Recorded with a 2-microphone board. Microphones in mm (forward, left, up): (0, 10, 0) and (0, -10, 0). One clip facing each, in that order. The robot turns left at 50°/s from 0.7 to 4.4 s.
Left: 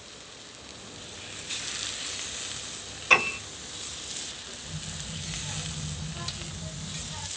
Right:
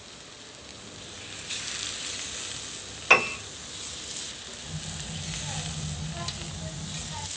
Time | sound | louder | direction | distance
3.1 | a piano | right 1 dB | 35° right (ahead or behind) | 1.2 m
4.6 | a child speaking | right 2 dB | 50° right (ahead or behind) | 1.8 m